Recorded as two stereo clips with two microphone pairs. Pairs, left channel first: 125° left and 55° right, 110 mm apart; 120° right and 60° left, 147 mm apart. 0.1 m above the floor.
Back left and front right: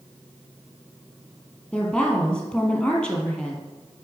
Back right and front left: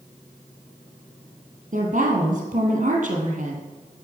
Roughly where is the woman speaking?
Ahead left.